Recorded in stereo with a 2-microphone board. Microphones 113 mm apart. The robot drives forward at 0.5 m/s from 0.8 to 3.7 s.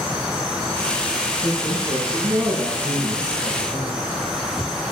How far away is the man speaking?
About 6.5 m.